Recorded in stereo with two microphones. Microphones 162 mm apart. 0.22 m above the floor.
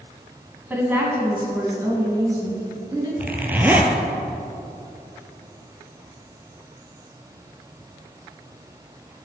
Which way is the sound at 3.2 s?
10° right (ahead or behind).